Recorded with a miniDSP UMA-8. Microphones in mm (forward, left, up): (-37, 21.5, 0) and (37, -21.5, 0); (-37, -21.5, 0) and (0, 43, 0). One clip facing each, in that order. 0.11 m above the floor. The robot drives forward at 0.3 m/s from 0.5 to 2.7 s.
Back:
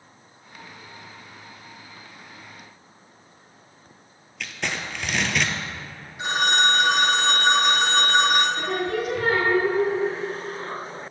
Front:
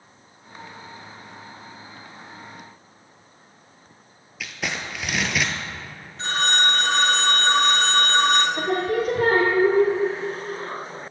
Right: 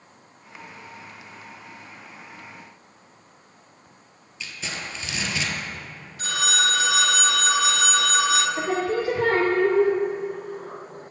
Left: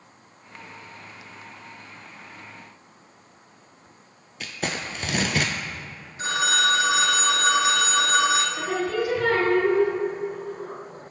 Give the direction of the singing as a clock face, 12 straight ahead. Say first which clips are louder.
Front 3 dB, right 1 dB; 2 o'clock.